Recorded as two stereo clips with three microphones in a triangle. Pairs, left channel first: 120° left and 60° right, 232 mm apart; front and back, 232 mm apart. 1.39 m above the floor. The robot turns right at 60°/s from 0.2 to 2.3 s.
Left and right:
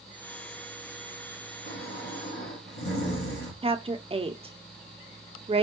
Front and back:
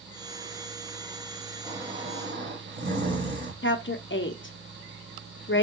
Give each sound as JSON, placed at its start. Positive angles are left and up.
{"t": 1.6, "sound": "snoring", "azimuth_deg": 95, "distance_m": 2.5}
{"t": 3.6, "sound": "a woman speaking", "azimuth_deg": 0, "distance_m": 0.6}